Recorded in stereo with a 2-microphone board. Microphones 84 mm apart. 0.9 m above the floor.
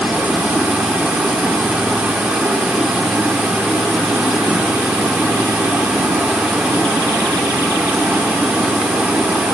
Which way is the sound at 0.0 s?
10° right (ahead or behind).